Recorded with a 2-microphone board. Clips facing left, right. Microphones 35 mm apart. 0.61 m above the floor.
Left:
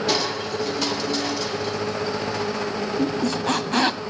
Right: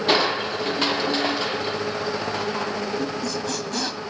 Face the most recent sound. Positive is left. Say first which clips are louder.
# left 4 dB
turn(degrees=45)  # may be behind; listen again after turning